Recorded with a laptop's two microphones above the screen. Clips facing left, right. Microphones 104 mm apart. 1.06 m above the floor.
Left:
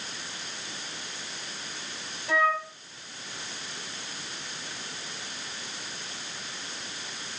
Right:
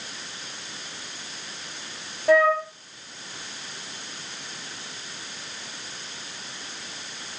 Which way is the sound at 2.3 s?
55° right (ahead or behind).